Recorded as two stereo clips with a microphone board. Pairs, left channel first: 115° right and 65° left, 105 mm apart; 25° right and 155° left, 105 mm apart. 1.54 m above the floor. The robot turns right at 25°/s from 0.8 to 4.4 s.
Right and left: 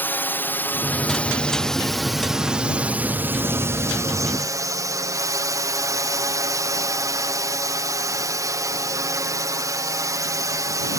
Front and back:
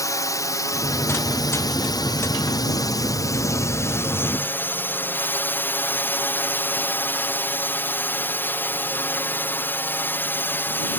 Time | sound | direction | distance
0.0 | a drone | 55° right | ?